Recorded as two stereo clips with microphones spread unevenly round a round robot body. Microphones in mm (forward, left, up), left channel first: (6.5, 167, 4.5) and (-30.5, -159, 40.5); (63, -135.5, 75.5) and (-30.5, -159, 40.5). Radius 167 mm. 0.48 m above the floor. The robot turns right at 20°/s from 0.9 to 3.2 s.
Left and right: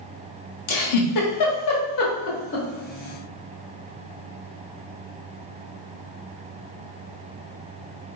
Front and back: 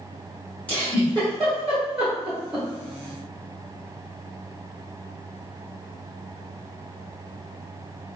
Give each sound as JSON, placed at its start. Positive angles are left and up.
{"t": 0.7, "sound": "a giggle", "azimuth_deg": 100, "distance_m": 0.9}